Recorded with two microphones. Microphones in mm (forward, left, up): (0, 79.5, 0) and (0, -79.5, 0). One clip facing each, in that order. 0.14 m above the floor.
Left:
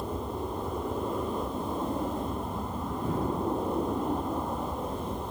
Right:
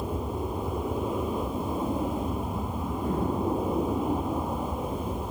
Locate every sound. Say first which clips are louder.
0.0 s an aircraft: right 2 dB; 5° right (ahead or behind)